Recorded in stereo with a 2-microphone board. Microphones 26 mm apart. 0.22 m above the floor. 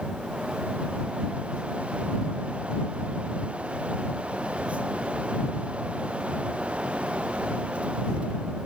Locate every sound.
Only background noise.